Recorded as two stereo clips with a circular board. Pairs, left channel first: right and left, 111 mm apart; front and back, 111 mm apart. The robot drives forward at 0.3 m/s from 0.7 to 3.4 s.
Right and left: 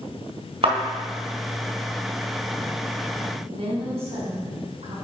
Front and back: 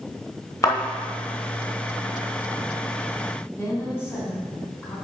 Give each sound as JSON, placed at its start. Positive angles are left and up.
{"t": 0.6, "sound": "a thud", "azimuth_deg": 55, "distance_m": 1.9}
{"t": 3.6, "sound": "a woman speaking", "azimuth_deg": 65, "distance_m": 3.0}